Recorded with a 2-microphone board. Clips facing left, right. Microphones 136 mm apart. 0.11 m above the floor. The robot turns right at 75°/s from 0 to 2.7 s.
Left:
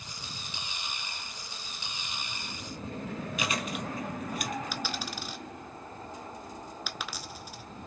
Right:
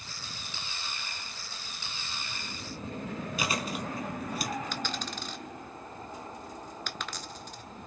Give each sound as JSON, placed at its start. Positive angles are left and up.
{"t": 3.4, "sound": "chewing", "side_deg": -35, "distance_m": 1.2}
{"t": 4.7, "sound": "a dropped coin", "side_deg": 5, "distance_m": 0.6}